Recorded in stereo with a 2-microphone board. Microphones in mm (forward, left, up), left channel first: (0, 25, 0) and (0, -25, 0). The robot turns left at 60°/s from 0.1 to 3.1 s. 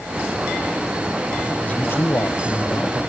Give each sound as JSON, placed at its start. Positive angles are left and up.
{"t": 1.6, "sound": "a man speaking", "azimuth_deg": 140, "distance_m": 2.5}